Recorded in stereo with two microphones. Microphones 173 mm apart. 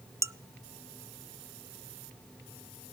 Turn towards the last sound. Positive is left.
turn(degrees=-15)  # may be behind; listen again after turning